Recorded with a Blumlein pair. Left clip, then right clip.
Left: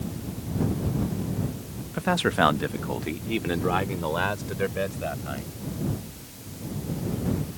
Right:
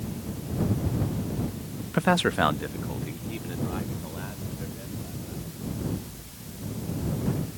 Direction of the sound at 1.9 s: 25° right.